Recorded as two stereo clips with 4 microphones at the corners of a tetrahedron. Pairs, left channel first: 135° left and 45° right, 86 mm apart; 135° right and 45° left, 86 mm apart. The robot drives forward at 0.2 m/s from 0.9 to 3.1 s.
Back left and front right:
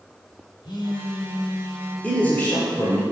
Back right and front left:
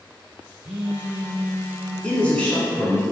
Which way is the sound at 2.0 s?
175° left.